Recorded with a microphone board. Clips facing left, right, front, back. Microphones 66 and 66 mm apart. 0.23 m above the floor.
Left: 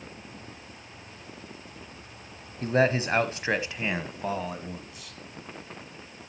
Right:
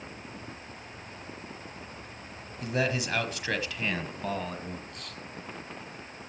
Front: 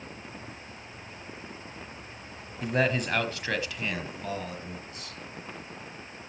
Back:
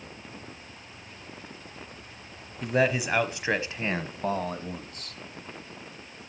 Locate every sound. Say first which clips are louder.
2.6 s a man speaking: left 6 dB, back 2 dB; 90° left, 1.1 m; by 5.2 s 175° left, 1.5 m